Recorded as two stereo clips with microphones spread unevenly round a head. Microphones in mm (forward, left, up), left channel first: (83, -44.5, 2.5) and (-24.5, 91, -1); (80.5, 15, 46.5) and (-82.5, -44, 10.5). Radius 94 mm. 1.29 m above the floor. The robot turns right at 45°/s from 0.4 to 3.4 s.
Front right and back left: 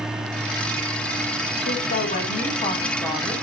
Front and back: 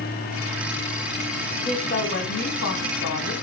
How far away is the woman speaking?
About 2.5 m.